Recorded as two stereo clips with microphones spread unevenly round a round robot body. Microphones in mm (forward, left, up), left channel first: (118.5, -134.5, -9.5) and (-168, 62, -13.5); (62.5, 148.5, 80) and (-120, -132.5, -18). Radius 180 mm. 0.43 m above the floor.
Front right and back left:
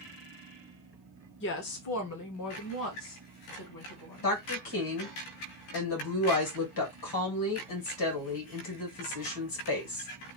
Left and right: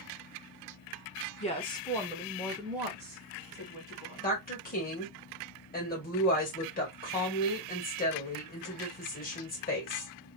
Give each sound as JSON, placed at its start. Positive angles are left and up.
{"t": 1.4, "sound": "a woman speaking", "azimuth_deg": -25, "distance_m": 0.8}
{"t": 4.2, "sound": "a woman speaking", "azimuth_deg": -15, "distance_m": 2.0}